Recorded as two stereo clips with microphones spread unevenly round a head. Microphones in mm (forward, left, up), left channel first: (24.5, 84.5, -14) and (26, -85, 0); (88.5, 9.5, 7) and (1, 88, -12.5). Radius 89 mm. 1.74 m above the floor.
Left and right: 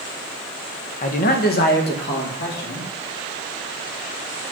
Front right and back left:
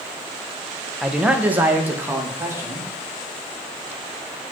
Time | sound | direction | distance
1.0 | a man speaking | 45° left | 1.0 m